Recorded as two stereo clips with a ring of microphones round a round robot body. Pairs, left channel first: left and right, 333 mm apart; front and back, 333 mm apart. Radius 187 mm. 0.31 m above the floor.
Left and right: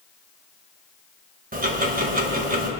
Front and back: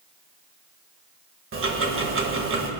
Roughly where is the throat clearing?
No throat clearing in this recording.